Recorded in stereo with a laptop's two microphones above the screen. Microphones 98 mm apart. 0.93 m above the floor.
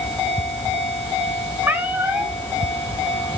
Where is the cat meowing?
20° right (ahead or behind), 1.4 m.